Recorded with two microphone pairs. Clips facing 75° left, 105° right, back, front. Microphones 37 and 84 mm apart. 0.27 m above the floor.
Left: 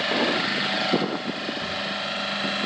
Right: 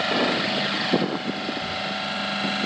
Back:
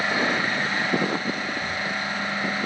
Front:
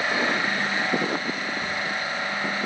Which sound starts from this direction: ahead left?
A zipper, at 1.6 s.